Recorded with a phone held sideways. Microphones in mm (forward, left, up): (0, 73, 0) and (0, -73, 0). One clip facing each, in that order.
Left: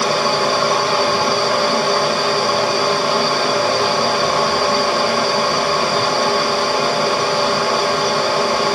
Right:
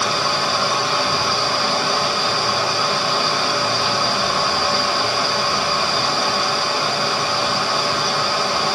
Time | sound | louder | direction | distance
0.0 | a fan | left 5 dB | 55° left (ahead or behind) | 0.8 m